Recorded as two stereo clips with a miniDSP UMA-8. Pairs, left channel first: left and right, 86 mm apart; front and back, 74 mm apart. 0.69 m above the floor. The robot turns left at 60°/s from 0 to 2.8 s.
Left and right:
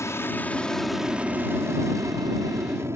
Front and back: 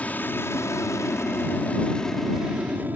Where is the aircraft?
60° left; by 3.0 s 130° right.